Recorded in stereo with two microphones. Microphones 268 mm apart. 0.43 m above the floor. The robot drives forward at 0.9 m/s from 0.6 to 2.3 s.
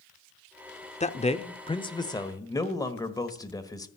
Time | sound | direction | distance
1.0 | a man speaking | 25° left (ahead or behind) | 0.8 m